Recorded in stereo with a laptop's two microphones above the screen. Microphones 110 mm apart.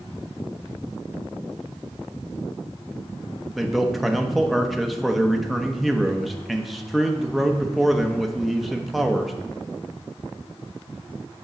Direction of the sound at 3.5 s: Centre (ahead or behind).